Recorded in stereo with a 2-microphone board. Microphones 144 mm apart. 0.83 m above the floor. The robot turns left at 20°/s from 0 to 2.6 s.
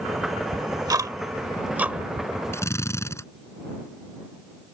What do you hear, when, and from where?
0.5 s ticking: 30° right (ahead or behind); by 2.3 s 5° right (ahead or behind)
2.5 s a drill: 15° left (ahead or behind); by 3.2 s 20° left (ahead or behind)